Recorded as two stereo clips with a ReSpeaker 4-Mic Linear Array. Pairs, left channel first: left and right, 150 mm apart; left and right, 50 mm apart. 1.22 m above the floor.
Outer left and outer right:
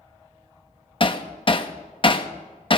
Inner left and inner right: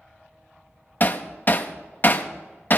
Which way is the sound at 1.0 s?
40° left (ahead or behind).